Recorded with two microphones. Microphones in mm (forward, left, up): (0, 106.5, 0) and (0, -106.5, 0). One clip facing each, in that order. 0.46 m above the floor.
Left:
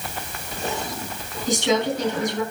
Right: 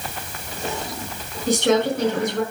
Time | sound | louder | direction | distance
1.5 | a woman speaking | right 3 dB | 70° right (ahead or behind) | 5 m